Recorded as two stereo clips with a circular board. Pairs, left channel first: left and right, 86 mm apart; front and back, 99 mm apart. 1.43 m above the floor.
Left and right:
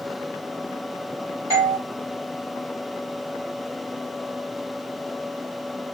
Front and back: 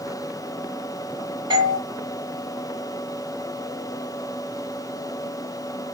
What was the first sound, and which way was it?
A doorbell, 140° right.